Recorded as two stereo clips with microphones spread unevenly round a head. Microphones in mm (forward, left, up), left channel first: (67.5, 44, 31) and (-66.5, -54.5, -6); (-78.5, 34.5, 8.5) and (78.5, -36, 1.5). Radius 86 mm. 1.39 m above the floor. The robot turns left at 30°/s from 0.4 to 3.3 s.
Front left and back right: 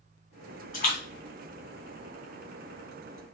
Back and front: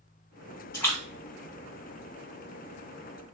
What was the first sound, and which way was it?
A splash, 80° left.